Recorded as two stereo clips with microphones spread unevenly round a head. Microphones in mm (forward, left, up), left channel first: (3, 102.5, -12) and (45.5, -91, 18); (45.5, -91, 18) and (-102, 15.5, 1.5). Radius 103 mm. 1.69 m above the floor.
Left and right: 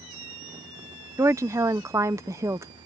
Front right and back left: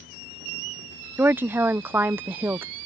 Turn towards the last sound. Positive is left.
turn(degrees=-135)